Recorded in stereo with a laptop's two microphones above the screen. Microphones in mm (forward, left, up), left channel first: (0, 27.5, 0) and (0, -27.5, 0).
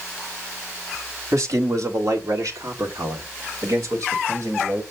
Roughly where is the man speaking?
Right.